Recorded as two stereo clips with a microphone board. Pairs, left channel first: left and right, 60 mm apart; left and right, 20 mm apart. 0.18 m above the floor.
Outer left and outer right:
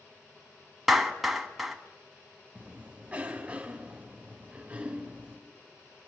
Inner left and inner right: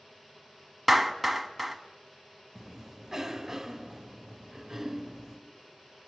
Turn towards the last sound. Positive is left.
turn(degrees=-25)  # may be behind; listen again after turning